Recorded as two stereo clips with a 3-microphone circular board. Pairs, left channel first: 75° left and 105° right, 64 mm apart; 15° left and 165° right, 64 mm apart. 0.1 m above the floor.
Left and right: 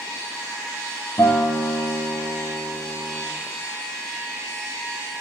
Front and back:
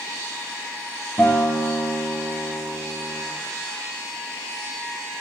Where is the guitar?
65° left, 1.8 m.